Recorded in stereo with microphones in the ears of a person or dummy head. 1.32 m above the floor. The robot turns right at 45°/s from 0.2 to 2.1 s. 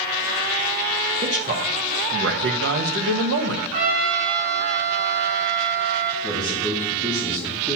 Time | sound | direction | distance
1.2 | a man speaking | 150° right | 0.8 m
3.7 | a trumpet | 40° right (ahead or behind) | 3 m
6.2 | a man speaking | 5° right (ahead or behind) | 2.5 m